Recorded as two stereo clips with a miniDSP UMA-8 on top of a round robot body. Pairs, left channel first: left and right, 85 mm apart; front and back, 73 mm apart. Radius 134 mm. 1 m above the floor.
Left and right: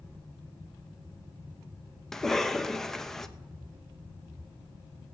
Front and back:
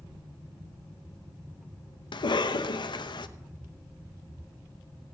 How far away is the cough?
About 0.9 m.